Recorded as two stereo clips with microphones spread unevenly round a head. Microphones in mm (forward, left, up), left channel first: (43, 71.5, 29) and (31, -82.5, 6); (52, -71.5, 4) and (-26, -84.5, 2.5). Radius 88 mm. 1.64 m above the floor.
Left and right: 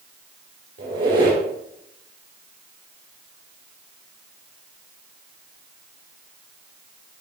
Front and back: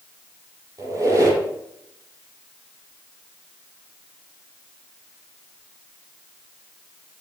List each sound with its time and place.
0.8 s a squeak: 135° right, 5 m